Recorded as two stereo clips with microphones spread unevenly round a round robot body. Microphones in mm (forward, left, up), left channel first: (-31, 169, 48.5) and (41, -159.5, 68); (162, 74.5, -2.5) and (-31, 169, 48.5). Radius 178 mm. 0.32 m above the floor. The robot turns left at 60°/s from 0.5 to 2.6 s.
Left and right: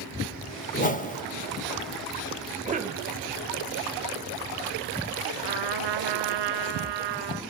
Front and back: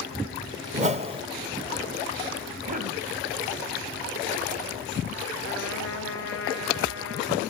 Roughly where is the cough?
Behind right.